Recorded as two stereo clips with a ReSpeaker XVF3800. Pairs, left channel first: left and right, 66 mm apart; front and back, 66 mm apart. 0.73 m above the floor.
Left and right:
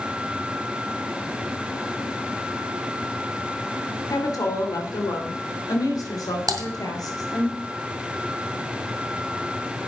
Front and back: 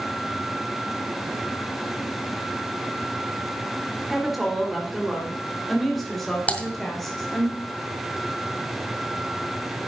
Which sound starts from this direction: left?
A woman speaking, at 4.1 s.